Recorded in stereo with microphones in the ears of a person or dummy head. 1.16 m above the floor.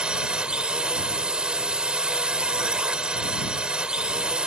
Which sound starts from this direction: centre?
A drone, at 0.0 s.